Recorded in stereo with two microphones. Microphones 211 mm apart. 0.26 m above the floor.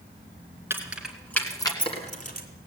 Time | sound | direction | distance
0.7 | keys jangling | 10° right (ahead or behind) | 2.5 m